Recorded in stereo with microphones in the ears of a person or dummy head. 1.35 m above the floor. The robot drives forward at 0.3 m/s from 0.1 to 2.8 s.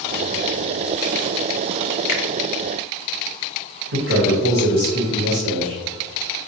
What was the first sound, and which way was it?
A finger snap, 40° left (ahead or behind).